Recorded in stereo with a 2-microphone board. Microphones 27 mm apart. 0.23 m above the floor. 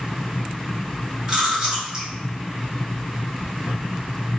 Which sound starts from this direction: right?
Chewing, at 1.3 s.